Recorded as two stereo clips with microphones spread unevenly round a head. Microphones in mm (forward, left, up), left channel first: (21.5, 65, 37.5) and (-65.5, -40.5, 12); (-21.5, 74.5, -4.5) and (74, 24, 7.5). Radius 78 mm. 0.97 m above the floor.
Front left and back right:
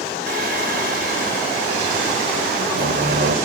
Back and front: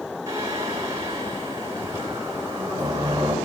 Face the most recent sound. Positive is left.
turn(degrees=-100)